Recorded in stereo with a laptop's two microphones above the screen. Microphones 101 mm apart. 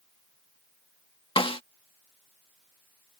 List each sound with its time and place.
1.4 s a snare drum: 65° left (ahead or behind)